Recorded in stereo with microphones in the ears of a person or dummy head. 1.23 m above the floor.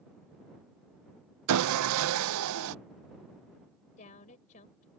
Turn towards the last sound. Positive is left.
turn(degrees=35)  # may be behind; listen again after turning